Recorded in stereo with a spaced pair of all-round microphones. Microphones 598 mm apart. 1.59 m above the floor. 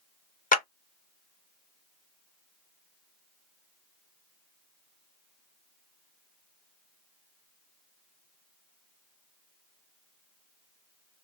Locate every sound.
0.5 s a clap: 15° left (ahead or behind), 0.7 m